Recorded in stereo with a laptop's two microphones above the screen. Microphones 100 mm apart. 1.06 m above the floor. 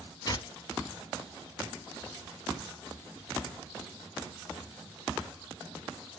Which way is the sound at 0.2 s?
40° left (ahead or behind).